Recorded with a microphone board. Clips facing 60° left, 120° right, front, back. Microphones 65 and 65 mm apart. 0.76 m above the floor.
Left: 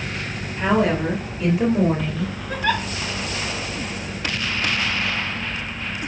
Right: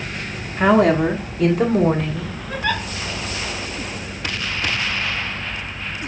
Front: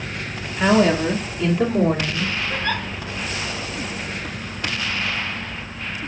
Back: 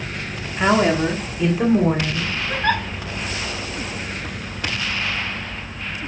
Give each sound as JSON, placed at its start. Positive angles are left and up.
{"t": 0.6, "sound": "a woman speaking", "azimuth_deg": -105, "distance_m": 1.5}
{"t": 2.5, "sound": "a giggle", "azimuth_deg": 145, "distance_m": 4.5}